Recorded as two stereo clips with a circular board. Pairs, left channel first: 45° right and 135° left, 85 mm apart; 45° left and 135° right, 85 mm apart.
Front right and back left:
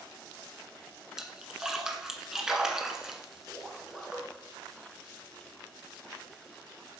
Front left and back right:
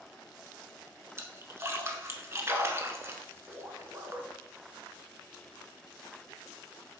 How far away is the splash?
About 1.1 m.